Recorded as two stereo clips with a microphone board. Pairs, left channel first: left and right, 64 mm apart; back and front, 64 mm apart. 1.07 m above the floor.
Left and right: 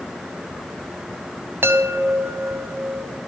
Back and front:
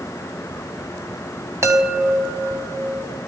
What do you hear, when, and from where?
1.6 s a chime: 40° right, 4 m